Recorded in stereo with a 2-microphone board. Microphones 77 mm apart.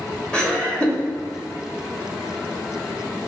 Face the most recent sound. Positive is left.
turn(degrees=10)  # may be behind; listen again after turning